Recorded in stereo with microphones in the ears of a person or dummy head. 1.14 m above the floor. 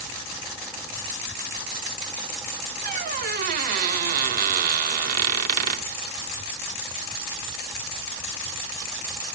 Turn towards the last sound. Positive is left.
turn(degrees=-50)  # may be behind; listen again after turning